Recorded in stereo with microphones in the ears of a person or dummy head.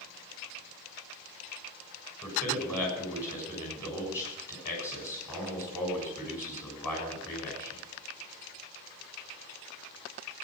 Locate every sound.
2.2 s a man speaking: 15° left (ahead or behind), 7 m